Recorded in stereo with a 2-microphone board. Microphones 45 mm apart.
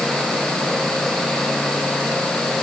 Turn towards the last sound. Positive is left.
No sound to turn to.